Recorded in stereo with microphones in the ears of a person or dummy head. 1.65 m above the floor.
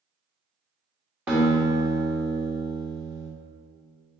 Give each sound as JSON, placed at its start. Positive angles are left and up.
{"t": 1.3, "sound": "a guitar", "side_deg": -5, "distance_m": 1.1}